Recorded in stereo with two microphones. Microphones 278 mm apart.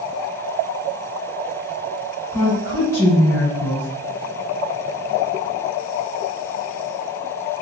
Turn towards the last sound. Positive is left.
turn(degrees=10)  # may be behind; listen again after turning